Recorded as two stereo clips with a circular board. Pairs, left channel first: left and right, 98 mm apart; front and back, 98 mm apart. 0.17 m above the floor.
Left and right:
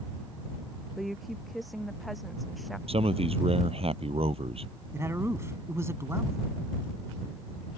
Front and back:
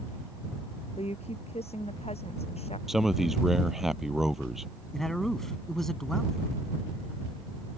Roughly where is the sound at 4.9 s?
Right.